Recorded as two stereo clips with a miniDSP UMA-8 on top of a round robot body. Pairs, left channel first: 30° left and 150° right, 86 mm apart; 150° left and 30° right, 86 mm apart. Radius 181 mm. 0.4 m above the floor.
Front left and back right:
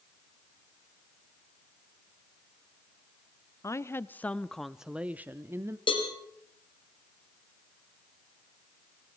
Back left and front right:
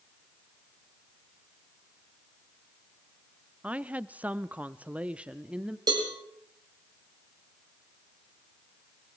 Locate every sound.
3.6 s a woman speaking: 35° left, 1.0 m; by 5.8 s 105° right, 1.2 m
5.9 s a cowbell: 10° left, 4 m